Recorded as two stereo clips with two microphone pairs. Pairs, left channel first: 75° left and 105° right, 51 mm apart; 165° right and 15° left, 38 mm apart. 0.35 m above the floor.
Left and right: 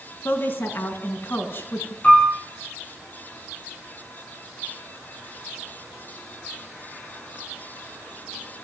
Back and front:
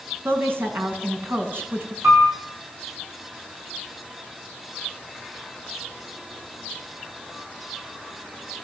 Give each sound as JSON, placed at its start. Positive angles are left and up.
{"t": 0.2, "sound": "a woman speaking", "azimuth_deg": 35, "distance_m": 5.0}
{"t": 2.0, "sound": "a piano", "azimuth_deg": 10, "distance_m": 9.5}